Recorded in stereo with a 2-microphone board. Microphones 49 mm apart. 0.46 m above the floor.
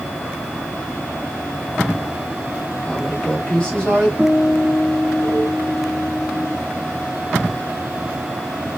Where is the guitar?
5° right (ahead or behind), 1.3 m.